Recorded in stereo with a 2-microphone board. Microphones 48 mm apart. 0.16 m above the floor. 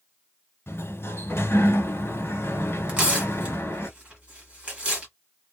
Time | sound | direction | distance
0.7 | a sliding door | 55° left (ahead or behind) | 1.1 m
2.9 | tearing paper | 20° right (ahead or behind) | 1.5 m